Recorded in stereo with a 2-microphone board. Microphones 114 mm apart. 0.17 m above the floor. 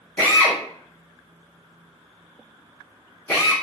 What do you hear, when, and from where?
0.2 s a drill: 15° left (ahead or behind), 1.1 m